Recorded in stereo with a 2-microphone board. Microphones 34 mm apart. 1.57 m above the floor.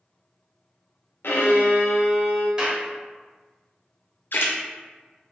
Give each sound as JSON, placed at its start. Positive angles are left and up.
{"t": 1.2, "sound": "a violin", "side_deg": 85, "distance_m": 0.6}
{"t": 2.6, "sound": "a clap", "side_deg": -20, "distance_m": 0.9}
{"t": 4.3, "sound": "a splash", "side_deg": 65, "distance_m": 0.5}